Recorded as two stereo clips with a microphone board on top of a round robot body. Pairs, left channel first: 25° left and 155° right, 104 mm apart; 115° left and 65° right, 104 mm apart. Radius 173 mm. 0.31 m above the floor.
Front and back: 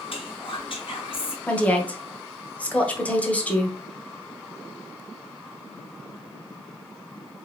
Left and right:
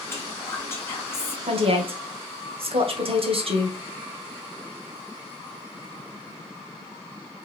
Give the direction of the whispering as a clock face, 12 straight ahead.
10 o'clock.